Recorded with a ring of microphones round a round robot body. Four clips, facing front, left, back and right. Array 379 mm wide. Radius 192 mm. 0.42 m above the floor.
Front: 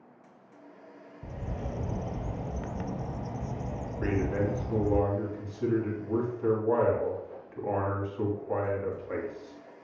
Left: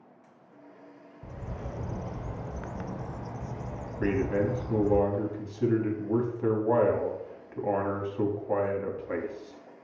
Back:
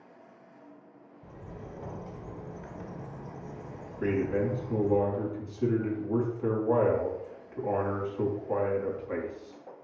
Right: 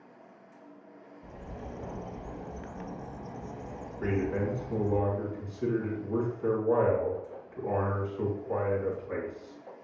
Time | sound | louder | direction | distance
1.2 | a bird | left 3 dB, front 7 dB | 20° left | 0.6 m
4.0 | a man speaking | left 3 dB, back 2 dB | 90° left | 3 m